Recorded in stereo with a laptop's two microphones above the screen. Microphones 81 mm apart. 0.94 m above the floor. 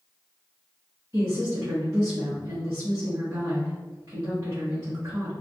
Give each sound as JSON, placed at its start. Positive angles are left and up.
{"t": 1.1, "sound": "a woman speaking", "side_deg": -40, "distance_m": 0.8}